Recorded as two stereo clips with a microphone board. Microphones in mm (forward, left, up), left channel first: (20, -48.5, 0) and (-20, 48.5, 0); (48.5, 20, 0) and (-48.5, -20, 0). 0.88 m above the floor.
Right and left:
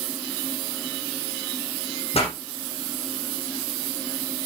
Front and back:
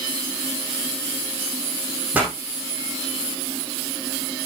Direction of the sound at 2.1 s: 80° right.